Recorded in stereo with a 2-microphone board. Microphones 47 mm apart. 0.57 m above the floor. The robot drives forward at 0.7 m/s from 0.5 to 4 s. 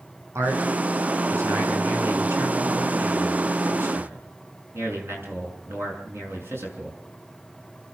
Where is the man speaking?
80° right, 6.5 m; by 7.0 s 60° right (ahead or behind), 7.5 m.